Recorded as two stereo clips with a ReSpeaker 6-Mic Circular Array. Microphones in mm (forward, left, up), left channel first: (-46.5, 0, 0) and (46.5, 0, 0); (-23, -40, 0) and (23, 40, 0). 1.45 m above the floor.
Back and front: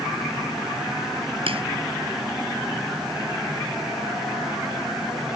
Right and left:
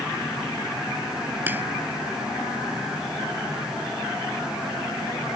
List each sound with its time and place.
1.5 s a crack: 10° right